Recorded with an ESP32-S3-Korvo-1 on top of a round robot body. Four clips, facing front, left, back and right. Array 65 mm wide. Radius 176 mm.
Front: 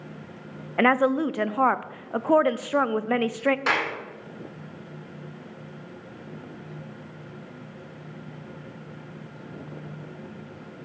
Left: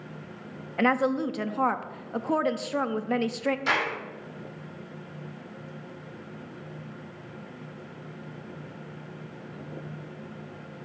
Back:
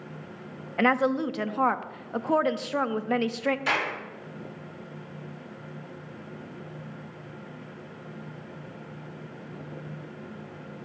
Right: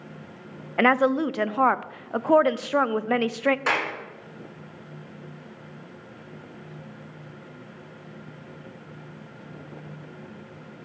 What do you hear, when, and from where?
0.8 s a woman speaking: 65° right, 0.5 m
3.7 s a clap: 45° right, 3 m